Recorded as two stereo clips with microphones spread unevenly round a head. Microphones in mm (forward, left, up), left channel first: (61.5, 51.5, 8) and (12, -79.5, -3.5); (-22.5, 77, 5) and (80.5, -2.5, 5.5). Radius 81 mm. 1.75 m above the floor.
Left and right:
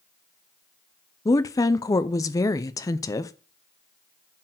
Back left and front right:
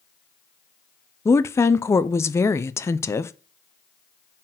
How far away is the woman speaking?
About 0.5 m.